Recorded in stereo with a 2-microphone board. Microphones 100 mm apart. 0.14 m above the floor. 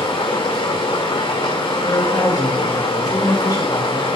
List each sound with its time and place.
0.0 s running water: 75° left (ahead or behind), 1.7 m
1.8 s a man speaking: 40° left (ahead or behind), 3.5 m